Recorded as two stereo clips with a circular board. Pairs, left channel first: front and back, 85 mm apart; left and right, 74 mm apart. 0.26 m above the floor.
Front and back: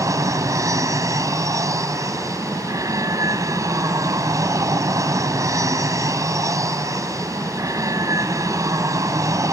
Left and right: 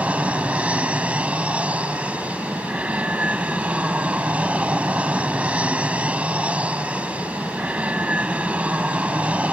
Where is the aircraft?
155° right.